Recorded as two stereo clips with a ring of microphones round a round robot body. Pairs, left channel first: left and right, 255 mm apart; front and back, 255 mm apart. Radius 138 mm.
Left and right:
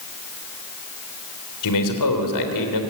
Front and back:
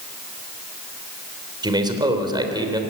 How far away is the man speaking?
About 3.5 m.